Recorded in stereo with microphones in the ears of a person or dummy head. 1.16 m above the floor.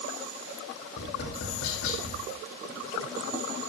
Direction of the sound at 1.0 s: 60° left (ahead or behind).